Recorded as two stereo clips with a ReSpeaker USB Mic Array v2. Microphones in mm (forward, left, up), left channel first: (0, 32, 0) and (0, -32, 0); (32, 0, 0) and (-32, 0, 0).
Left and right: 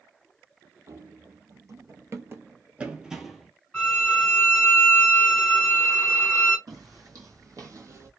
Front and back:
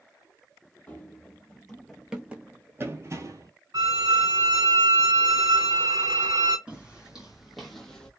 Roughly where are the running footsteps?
Ahead right.